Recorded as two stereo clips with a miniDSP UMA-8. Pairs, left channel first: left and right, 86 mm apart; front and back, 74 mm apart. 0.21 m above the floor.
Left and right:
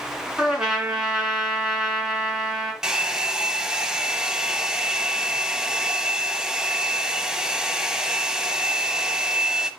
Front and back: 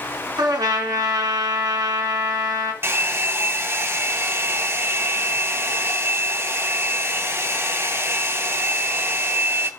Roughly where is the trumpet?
Behind.